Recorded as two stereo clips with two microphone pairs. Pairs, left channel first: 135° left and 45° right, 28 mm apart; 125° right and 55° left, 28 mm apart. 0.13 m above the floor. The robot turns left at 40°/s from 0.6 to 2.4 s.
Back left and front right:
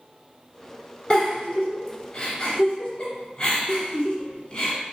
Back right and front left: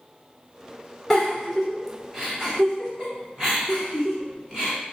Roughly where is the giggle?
Behind left.